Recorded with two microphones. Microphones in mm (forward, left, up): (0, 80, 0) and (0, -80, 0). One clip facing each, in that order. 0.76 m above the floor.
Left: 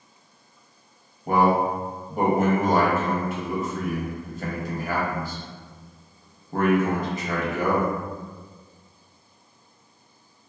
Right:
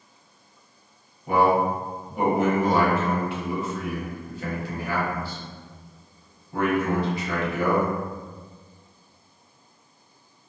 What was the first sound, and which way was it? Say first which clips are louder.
A man speaking: even; 45° left (ahead or behind).